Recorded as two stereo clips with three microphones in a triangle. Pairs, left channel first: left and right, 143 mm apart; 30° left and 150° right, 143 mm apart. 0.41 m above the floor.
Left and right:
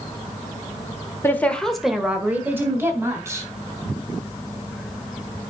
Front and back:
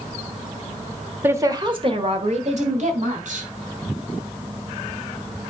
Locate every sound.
1.2 s a woman speaking: 150° left, 1.3 m; by 3.5 s 155° right, 3.5 m